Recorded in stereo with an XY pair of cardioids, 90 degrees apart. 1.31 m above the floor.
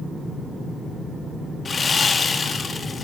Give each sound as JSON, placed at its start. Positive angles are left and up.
{"t": 1.6, "sound": "sawing", "azimuth_deg": 40, "distance_m": 2.0}